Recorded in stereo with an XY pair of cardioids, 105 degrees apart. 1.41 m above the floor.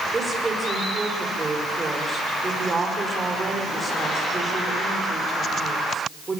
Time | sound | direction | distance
0.1 | a woman speaking | 25° right | 5.5 m